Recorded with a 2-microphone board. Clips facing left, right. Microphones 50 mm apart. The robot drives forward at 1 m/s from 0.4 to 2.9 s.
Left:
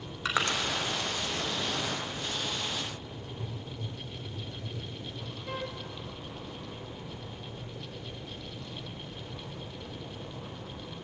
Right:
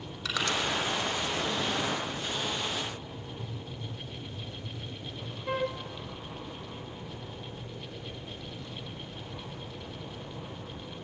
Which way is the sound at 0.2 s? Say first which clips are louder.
Left 2 dB; 30° left (ahead or behind).